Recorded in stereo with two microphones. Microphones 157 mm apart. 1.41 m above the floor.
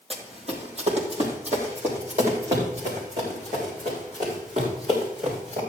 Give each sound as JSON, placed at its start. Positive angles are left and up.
{"t": 0.1, "sound": "running footsteps", "side_deg": -40, "distance_m": 2.0}